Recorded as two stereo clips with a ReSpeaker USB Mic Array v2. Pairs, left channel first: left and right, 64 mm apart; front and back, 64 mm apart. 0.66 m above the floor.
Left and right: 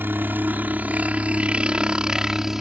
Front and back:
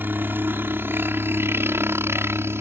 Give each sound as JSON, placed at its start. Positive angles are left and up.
{"t": 0.0, "sound": "a helicopter", "azimuth_deg": -135}